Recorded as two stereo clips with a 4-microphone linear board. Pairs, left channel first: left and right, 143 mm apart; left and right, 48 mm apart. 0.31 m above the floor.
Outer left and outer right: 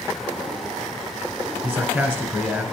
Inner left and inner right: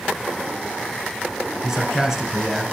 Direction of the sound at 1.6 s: 15° right (ahead or behind).